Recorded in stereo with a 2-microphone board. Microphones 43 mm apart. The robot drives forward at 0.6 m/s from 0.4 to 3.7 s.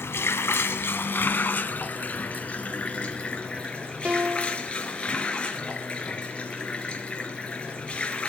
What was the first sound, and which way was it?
Running water, 65° left (ahead or behind).